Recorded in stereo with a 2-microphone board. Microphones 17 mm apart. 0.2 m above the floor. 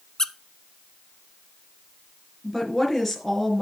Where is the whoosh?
No whoosh in this recording.